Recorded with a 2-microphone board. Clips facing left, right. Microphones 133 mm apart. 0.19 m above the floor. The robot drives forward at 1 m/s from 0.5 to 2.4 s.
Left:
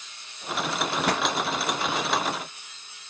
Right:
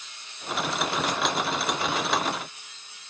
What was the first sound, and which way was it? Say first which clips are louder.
A pop: left 3 dB; 70° left (ahead or behind).